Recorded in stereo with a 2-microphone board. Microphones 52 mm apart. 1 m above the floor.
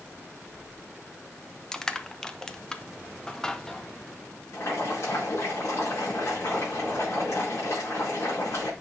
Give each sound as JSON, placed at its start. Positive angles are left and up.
{"t": 1.7, "sound": "crushing", "side_deg": 15, "distance_m": 0.7}
{"t": 4.5, "sound": "boiling", "side_deg": 65, "distance_m": 6.5}